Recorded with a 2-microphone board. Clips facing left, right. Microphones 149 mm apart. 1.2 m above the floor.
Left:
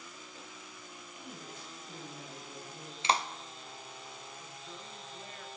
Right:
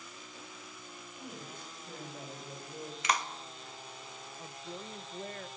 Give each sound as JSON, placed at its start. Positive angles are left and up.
{"t": 1.2, "sound": "a woman speaking", "side_deg": -60, "distance_m": 4.5}
{"t": 3.0, "sound": "a clap", "side_deg": 30, "distance_m": 0.6}
{"t": 4.4, "sound": "a woman speaking", "side_deg": -45, "distance_m": 0.7}